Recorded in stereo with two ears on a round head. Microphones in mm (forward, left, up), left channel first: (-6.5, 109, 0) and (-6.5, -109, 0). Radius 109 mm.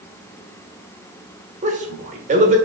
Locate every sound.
1.6 s a man speaking: 30° right (ahead or behind), 0.8 m